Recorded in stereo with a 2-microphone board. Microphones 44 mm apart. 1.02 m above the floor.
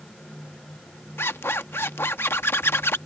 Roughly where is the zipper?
Left.